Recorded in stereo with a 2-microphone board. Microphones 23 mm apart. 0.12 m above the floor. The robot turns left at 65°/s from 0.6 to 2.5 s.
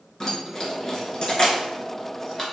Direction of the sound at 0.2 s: 20° left (ahead or behind).